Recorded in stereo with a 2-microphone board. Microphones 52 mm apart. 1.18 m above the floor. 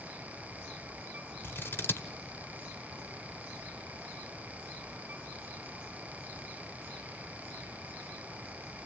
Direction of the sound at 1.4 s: 45° left (ahead or behind).